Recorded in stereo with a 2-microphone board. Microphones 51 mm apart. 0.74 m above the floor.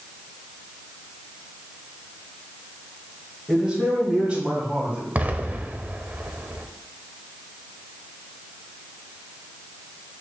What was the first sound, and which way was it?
A man speaking, 15° right (ahead or behind).